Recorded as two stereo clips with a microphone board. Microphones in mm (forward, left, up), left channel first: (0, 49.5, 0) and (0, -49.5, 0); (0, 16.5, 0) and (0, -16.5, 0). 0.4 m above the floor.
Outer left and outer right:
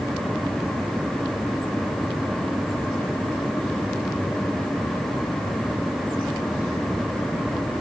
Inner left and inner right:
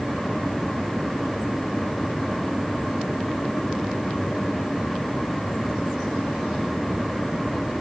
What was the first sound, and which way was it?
Only background noise.